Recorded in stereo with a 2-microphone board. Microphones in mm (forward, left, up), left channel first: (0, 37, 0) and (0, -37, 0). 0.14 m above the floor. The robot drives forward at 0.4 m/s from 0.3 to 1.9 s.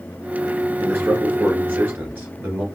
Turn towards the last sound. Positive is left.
turn(degrees=-25)  # may be behind; listen again after turning